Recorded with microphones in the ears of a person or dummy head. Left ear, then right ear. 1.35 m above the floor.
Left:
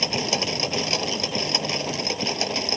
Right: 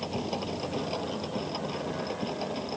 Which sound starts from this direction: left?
A machine running, at 0.0 s.